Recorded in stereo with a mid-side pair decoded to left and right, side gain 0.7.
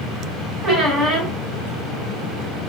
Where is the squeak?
35° right, 1.7 m.